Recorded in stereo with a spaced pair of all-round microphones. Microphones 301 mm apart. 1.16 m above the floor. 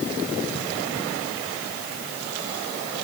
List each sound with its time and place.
Only background noise.